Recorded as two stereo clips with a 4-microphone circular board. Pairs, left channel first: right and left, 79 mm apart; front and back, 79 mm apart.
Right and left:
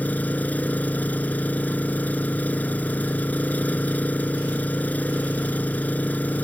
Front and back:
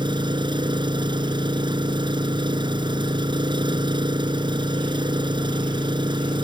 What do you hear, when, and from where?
0.0 s an engine running: 160° right